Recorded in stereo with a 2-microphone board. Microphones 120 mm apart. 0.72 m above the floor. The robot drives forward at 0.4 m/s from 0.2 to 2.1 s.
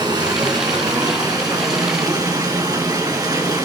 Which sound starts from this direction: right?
Running water, at 0.0 s.